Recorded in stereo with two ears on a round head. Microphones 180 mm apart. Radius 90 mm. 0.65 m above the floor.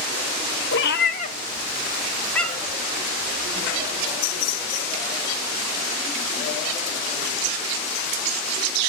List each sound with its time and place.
0.7 s a cat meowing: 65° left (ahead or behind), 0.7 m; by 2.8 s centre (ahead or behind), 1.7 m